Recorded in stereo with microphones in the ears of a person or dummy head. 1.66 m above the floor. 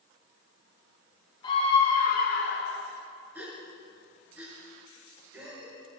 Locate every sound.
1.4 s a scream: 25° left (ahead or behind), 1.9 m; by 2.9 s 70° left (ahead or behind), 2 m
3.4 s a gasp: 10° right (ahead or behind), 3.5 m